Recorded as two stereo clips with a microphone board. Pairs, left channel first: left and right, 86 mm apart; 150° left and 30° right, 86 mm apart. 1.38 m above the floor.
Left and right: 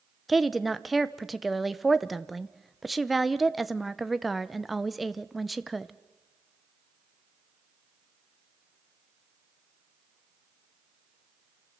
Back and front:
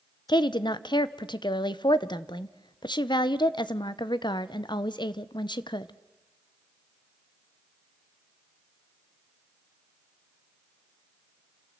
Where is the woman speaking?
Straight behind, 0.7 m.